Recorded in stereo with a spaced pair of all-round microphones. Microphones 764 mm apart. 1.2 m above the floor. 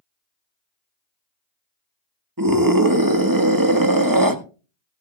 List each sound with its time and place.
2.4 s a scream: 25° right (ahead or behind), 1.6 m